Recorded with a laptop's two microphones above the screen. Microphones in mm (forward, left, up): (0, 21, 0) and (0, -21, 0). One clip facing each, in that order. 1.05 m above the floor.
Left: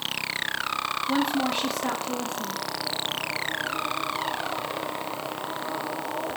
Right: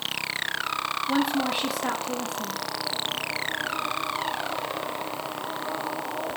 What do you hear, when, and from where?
1.1 s a woman speaking: 10° right (ahead or behind), 1.6 m